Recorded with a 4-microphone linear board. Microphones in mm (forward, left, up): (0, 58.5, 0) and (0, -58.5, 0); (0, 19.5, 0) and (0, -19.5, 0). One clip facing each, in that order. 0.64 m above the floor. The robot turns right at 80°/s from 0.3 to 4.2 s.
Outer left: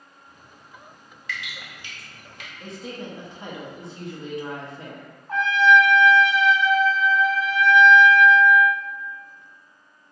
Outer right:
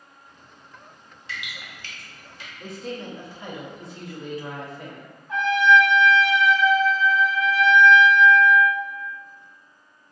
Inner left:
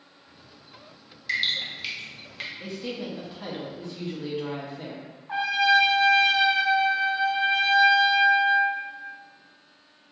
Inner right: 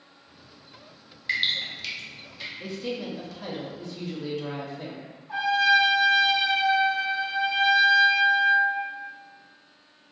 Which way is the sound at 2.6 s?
5° right (ahead or behind).